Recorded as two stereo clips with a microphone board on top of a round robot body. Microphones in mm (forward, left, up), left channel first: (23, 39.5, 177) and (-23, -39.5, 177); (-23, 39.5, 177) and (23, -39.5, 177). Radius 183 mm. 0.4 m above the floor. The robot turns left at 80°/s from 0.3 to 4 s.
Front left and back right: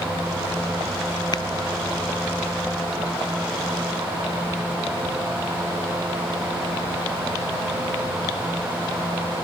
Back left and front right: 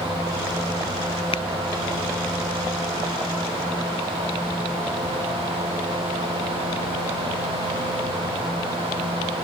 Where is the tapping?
105° left; by 1.4 s 95° left.